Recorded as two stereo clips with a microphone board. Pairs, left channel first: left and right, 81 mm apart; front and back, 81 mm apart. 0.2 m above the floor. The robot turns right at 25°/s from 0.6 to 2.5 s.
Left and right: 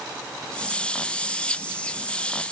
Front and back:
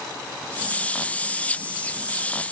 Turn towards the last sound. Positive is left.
No sound to turn to.